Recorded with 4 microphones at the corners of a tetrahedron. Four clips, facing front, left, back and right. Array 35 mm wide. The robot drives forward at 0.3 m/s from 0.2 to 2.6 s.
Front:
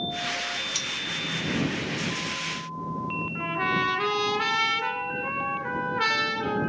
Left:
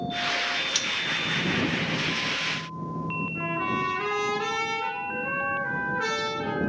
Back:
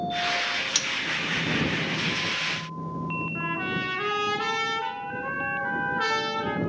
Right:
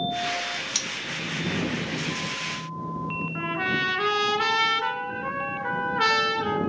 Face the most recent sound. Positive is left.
turn(degrees=-95)